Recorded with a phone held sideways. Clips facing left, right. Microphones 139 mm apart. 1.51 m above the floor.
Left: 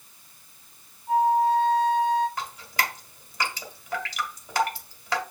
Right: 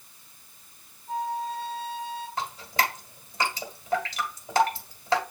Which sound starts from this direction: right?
Dripping, at 2.4 s.